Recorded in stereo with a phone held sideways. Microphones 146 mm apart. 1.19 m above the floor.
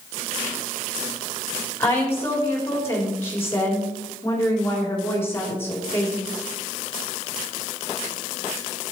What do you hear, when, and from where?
1.8 s a woman speaking: 15° left (ahead or behind), 3.5 m